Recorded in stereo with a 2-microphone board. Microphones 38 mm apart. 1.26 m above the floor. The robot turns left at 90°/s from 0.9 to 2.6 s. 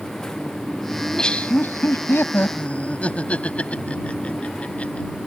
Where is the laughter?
Centre (ahead or behind); by 5.1 s 35° left (ahead or behind).